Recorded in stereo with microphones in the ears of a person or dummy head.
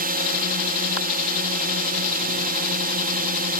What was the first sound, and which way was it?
A drone, 40° right (ahead or behind).